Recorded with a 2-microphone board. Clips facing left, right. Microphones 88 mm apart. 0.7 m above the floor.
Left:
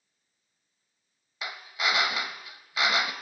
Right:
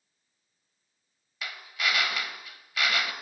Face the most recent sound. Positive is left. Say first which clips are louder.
# left 1 dB
turn(degrees=25)  # may be behind; listen again after turning